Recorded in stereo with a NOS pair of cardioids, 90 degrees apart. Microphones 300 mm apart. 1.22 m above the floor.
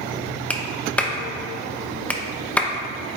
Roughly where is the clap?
Ahead.